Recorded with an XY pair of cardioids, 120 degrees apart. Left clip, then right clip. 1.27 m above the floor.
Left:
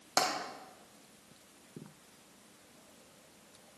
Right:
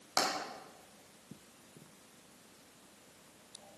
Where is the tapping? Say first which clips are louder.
Left 2 dB; 25° left, 2.5 m.